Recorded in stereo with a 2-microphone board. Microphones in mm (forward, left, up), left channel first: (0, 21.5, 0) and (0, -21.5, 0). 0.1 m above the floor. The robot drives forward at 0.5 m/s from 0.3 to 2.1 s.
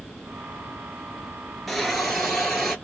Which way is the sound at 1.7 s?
Centre (ahead or behind).